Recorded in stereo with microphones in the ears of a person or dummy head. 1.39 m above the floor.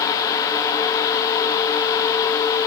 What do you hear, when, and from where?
Only background noise.